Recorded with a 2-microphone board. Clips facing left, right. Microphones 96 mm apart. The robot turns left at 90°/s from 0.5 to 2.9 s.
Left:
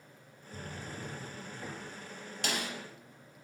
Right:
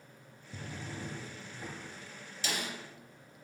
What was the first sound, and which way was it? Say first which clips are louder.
A drawer: even; 85° right.